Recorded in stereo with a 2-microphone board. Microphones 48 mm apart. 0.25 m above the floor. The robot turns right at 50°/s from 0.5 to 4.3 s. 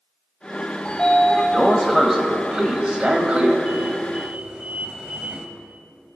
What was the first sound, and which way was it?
A sliding door, 20° left (ahead or behind).